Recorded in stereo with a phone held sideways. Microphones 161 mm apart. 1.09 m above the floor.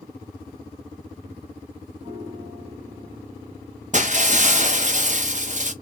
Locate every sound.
2.0 s a piano: 40° right (ahead or behind), 1.3 m
3.9 s breaking glass: 50° right (ahead or behind), 0.7 m